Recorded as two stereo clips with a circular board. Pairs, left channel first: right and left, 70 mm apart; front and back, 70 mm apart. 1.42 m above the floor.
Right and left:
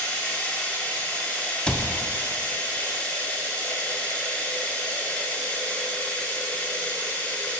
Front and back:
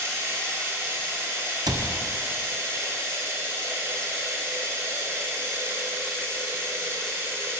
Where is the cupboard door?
165° right, 0.6 m.